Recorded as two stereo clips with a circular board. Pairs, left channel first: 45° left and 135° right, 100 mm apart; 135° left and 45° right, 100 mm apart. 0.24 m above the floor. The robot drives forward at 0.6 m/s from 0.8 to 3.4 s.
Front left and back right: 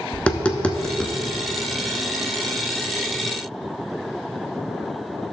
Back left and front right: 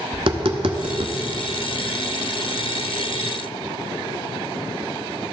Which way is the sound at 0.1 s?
30° right.